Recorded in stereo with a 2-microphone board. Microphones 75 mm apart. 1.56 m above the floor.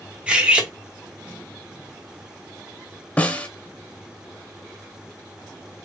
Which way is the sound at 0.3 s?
15° right (ahead or behind).